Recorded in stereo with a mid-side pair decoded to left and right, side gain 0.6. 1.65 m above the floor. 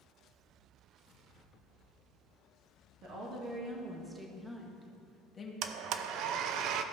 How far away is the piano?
I don't hear a piano.